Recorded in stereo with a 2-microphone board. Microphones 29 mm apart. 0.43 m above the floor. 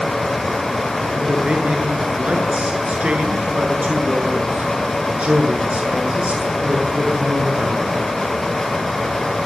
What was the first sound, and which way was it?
A man speaking, 50° right (ahead or behind).